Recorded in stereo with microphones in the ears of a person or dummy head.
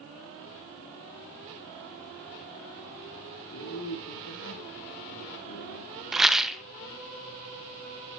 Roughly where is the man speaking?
Left.